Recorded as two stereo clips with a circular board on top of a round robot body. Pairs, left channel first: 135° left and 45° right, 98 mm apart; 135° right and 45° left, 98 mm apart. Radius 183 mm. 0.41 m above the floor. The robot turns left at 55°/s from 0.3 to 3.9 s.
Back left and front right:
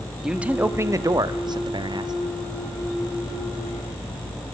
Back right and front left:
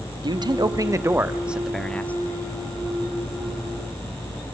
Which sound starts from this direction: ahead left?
A man speaking, at 0.2 s.